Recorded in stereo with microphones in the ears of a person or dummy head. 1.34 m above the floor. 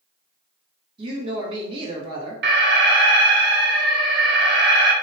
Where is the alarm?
60° right (ahead or behind), 0.6 m.